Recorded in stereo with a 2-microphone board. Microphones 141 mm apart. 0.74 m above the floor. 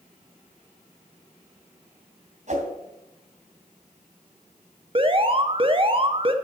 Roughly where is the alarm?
Right.